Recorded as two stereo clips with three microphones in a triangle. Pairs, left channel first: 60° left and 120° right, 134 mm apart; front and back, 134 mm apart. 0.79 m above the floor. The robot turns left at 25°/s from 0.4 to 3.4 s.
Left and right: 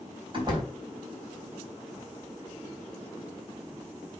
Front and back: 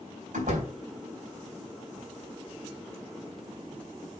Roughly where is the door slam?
Behind.